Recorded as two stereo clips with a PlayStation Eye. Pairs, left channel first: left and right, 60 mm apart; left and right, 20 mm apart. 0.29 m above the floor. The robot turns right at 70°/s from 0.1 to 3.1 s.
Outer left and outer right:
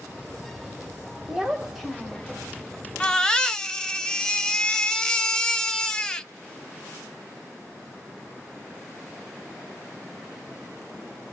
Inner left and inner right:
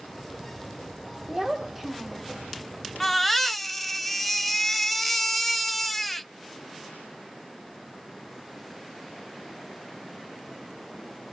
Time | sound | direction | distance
1.3 | a child speaking | 10° right (ahead or behind) | 0.8 m
3.0 | a baby crying | 20° left (ahead or behind) | 0.5 m